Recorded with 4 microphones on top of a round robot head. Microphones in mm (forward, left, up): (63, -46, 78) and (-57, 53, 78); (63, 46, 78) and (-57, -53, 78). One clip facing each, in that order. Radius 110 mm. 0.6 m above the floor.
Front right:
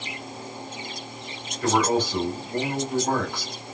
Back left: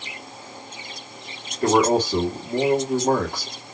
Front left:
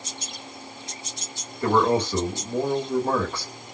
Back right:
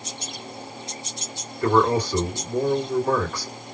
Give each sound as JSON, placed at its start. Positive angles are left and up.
{"t": 1.6, "sound": "a man speaking", "azimuth_deg": 100, "distance_m": 1.8}